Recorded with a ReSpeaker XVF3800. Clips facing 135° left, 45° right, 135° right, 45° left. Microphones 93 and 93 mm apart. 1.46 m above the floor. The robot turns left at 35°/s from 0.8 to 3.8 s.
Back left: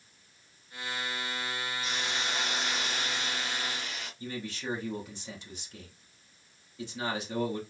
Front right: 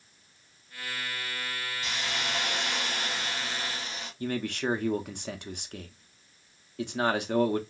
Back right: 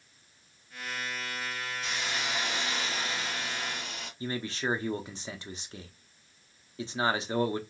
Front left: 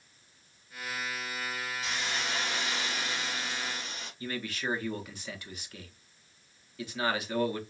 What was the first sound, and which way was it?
A hiss, 45° right.